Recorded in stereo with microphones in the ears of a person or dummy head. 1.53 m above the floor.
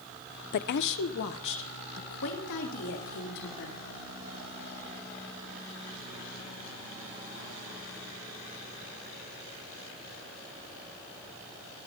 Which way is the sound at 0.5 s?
50° left (ahead or behind).